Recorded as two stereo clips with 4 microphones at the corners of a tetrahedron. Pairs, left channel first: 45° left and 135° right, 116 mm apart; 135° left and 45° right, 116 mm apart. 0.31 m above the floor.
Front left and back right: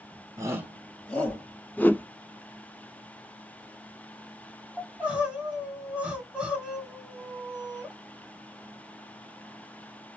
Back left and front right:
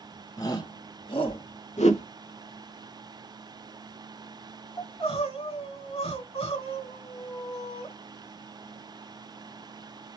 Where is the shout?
175° left, 1.4 m; by 1.4 s 110° left, 1.9 m.